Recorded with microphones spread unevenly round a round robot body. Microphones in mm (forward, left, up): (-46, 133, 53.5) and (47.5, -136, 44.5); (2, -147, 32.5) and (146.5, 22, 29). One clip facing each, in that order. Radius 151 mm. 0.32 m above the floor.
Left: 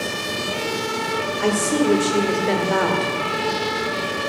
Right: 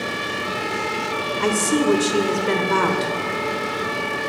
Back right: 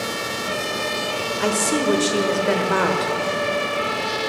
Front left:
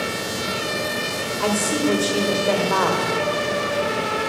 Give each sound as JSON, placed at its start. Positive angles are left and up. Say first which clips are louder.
{"t": 1.4, "sound": "a woman speaking", "louder": "even, even", "azimuth_deg": -110, "distance_m": 1.2}